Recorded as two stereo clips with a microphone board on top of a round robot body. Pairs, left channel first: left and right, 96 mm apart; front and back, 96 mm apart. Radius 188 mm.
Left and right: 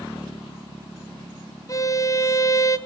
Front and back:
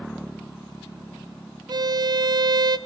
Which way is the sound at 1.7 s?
140° left.